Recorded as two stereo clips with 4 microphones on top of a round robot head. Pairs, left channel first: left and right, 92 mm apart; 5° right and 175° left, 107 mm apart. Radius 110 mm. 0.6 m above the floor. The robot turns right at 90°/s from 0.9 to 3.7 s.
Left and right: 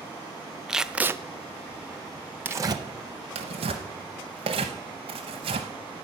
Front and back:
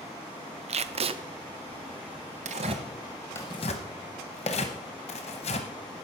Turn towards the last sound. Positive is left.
turn(degrees=-45)